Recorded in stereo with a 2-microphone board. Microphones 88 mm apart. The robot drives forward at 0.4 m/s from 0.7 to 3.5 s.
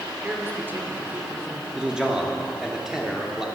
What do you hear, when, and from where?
0.2 s a man speaking: 20° right (ahead or behind), 2 m; by 1.6 s 25° right (ahead or behind), 1.7 m
1.8 s a man speaking: 10° right (ahead or behind), 1.4 m; by 3.5 s 5° right (ahead or behind), 2.0 m